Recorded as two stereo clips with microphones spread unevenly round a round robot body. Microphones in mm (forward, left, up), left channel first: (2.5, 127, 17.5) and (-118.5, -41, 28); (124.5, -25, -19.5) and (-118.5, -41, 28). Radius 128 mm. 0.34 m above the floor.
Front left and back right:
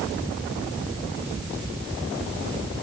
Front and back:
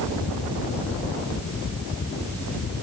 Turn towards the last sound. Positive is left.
No sound to turn to.